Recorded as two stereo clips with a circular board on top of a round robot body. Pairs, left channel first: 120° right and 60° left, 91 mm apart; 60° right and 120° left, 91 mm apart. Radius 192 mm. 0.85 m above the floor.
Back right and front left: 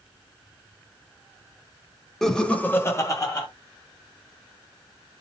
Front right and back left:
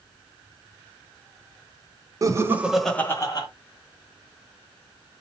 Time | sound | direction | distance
2.2 | laughter | 155° left | 1.1 m